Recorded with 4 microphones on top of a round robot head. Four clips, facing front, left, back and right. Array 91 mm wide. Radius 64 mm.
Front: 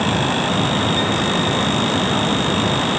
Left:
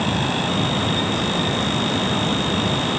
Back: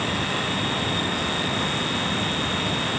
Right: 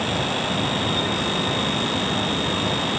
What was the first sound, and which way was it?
Only background noise.